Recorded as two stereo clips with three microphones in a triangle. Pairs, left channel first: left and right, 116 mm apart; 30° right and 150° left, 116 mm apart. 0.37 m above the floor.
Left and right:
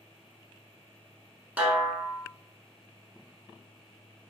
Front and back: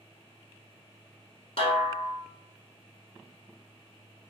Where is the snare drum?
15° right, 0.7 m.